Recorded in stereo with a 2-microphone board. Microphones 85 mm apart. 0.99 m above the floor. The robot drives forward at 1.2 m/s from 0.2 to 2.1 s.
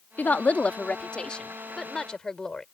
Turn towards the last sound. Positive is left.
turn(degrees=10)  # may be behind; listen again after turning